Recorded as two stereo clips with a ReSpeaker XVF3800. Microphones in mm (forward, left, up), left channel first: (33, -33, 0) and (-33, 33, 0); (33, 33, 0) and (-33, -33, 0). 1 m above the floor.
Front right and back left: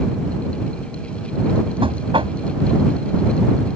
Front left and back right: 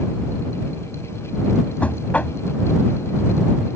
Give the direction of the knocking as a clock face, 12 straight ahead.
8 o'clock.